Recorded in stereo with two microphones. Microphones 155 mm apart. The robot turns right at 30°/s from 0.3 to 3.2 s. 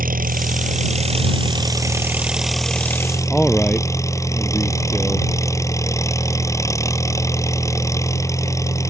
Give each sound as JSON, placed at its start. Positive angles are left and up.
{"t": 0.0, "sound": "an engine running", "azimuth_deg": -65}
{"t": 3.3, "sound": "a man speaking", "side_deg": 5}